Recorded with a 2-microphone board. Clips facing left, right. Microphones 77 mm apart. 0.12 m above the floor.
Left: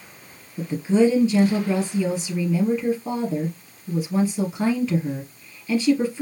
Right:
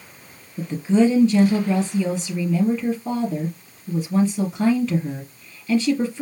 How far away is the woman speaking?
About 2.5 m.